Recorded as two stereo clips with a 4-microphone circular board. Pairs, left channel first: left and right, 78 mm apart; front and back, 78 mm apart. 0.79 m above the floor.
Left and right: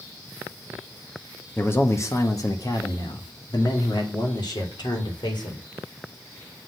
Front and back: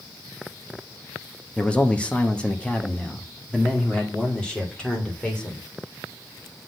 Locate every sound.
1.6 s a man speaking: 65° left, 1.0 m; by 5.6 s 80° left, 3 m